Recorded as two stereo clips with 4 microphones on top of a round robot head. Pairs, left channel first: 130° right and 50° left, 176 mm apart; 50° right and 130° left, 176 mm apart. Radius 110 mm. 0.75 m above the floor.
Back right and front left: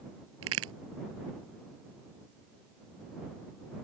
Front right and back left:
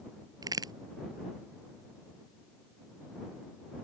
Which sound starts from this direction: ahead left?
A crack, at 0.4 s.